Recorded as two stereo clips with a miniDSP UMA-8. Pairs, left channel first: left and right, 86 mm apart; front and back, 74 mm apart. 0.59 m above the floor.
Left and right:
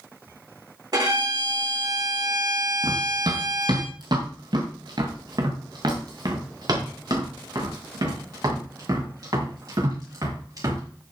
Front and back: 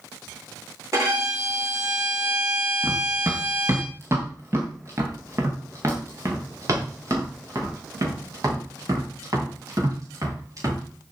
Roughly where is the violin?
Behind right.